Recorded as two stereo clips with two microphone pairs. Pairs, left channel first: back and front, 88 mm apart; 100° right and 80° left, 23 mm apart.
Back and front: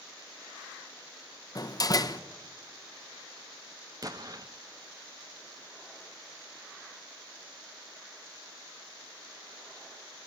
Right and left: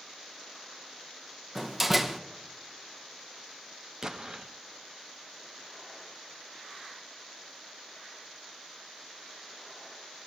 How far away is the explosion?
About 0.8 m.